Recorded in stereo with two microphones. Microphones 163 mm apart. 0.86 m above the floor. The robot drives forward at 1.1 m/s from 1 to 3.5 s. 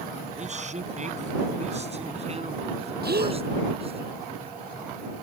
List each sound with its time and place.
0.4 s a man speaking: 45° right (ahead or behind); by 4.0 s 40° right (ahead or behind)
3.0 s a gasp: 85° right; by 3.4 s 80° right